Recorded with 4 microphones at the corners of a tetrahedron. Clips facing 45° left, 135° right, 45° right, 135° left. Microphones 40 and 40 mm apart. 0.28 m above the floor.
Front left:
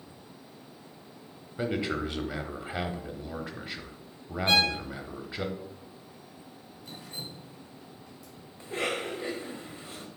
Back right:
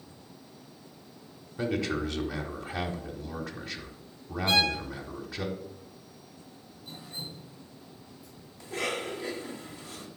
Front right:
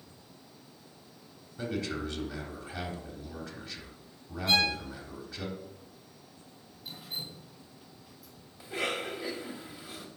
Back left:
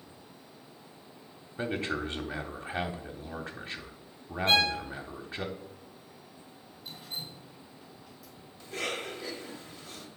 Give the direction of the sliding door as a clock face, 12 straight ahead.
I don't hear a sliding door.